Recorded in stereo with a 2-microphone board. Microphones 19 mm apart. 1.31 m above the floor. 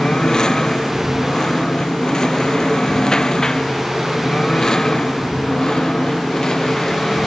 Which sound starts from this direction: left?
A lawn mower, at 0.0 s.